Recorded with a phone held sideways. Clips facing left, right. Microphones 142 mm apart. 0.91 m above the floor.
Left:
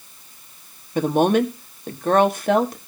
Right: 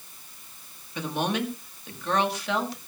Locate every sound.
0.9 s a woman speaking: 50° left (ahead or behind), 1.6 m